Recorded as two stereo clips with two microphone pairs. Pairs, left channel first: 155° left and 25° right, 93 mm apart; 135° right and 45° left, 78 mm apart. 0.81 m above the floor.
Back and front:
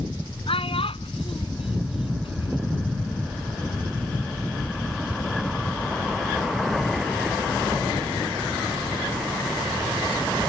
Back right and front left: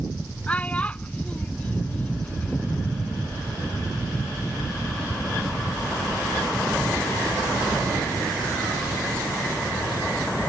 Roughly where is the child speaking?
Behind left.